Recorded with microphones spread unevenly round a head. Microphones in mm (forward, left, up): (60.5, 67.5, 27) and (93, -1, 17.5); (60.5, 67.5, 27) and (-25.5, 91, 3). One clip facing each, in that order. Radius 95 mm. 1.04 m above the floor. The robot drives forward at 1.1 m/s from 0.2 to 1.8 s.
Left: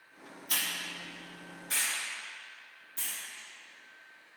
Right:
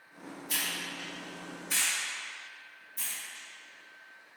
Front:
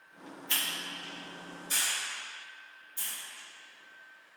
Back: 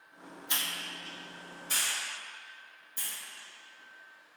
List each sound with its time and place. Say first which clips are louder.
0.5 s a hiss: even, even; 125° left, 0.9 m; by 3.2 s 165° left, 1.9 m